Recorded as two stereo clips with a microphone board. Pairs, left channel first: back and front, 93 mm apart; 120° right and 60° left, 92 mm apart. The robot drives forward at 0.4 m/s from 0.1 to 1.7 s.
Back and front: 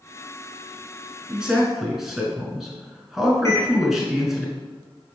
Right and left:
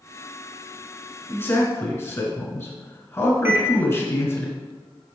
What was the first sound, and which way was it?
A man speaking, 70° right.